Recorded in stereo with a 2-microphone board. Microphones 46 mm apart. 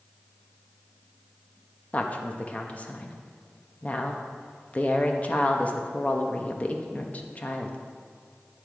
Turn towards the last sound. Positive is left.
turn(degrees=30)  # may be behind; listen again after turning